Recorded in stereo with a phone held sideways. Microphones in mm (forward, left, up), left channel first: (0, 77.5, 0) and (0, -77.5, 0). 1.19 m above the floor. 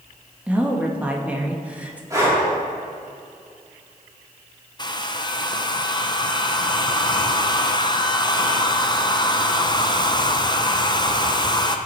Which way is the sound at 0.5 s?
10° right (ahead or behind).